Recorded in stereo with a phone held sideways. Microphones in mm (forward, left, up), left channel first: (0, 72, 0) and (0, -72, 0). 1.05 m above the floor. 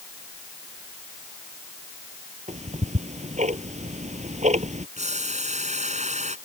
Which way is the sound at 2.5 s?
55° right (ahead or behind).